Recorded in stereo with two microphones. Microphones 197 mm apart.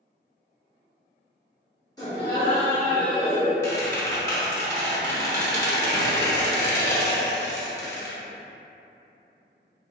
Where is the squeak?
15° left (ahead or behind), 0.6 m.